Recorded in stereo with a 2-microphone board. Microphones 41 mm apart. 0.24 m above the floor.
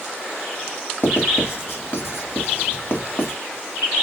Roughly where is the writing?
Left.